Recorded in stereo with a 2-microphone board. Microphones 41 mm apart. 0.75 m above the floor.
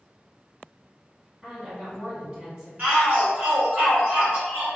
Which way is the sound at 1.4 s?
25° right (ahead or behind).